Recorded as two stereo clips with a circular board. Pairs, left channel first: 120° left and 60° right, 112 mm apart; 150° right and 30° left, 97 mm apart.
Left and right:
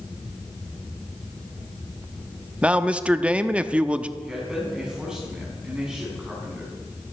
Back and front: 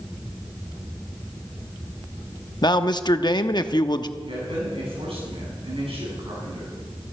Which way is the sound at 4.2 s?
25° left.